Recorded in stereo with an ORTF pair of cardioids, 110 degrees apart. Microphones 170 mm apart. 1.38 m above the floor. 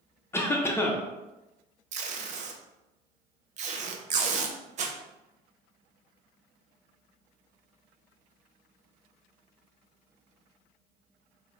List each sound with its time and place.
0.3 s a cough: 15° left, 0.8 m
1.9 s tape being pulled: 45° right, 0.6 m